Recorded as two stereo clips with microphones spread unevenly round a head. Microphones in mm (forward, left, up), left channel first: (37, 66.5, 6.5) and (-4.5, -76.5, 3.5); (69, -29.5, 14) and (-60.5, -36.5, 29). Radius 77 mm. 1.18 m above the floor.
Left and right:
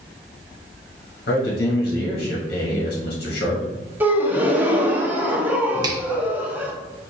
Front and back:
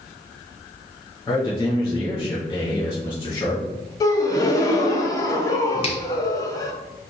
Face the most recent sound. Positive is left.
turn(degrees=-45)